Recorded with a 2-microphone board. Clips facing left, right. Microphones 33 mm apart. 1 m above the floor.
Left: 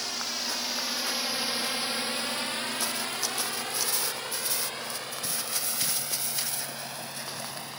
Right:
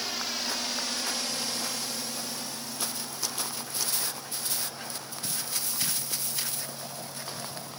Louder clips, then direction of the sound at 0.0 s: Even; 5° right (ahead or behind).